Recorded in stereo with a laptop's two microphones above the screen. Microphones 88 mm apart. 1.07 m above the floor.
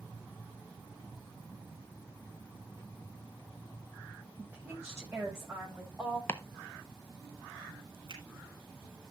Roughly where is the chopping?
Left.